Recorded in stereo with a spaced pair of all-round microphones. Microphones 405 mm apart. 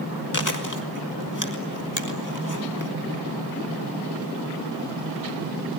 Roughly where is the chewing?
Left.